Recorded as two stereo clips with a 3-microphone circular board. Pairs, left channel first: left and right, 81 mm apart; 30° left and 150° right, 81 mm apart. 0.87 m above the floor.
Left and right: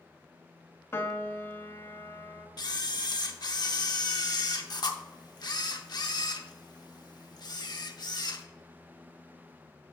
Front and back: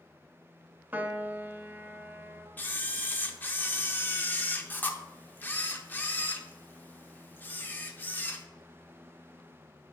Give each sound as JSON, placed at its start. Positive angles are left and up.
{"t": 0.9, "sound": "a piano", "azimuth_deg": 145, "distance_m": 0.6}
{"t": 2.6, "sound": "a camera shutter", "azimuth_deg": 90, "distance_m": 0.6}